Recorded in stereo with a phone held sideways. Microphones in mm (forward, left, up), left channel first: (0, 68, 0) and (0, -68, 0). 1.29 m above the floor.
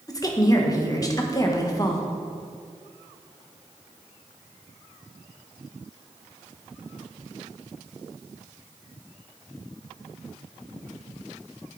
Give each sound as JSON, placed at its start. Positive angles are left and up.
{"t": 0.1, "sound": "a woman speaking", "side_deg": 25, "distance_m": 1.2}